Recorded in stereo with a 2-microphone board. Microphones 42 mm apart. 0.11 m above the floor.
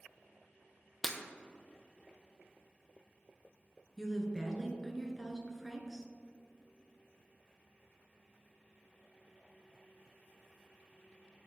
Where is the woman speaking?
10° right (ahead or behind), 1.1 m.